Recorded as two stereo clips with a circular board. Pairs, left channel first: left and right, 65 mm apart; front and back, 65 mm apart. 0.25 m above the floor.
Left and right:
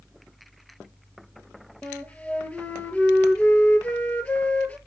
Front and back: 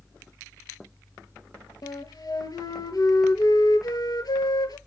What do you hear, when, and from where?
1.8 s a flute: 20° left, 1.2 m